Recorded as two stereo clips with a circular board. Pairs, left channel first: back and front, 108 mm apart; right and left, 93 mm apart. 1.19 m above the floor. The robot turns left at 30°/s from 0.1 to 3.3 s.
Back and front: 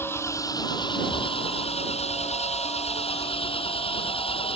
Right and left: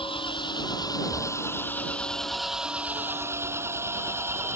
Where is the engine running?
110° right; by 4.6 s 150° left.